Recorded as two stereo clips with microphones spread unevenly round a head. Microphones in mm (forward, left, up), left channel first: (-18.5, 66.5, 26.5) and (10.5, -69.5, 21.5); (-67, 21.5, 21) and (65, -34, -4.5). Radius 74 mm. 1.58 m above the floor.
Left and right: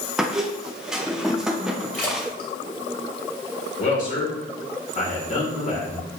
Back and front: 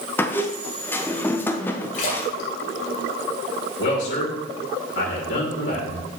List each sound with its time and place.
0.2 s a squeak: 165° right, 0.5 m
1.9 s a splash: straight behind, 2.5 m
3.8 s a man speaking: 140° left, 2.5 m